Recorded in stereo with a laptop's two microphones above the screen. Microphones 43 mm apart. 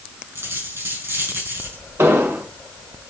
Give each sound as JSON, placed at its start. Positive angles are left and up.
{"t": 0.3, "sound": "a dropped coin", "side_deg": -75, "distance_m": 4.5}
{"t": 2.0, "sound": "an explosion", "side_deg": -70, "distance_m": 1.2}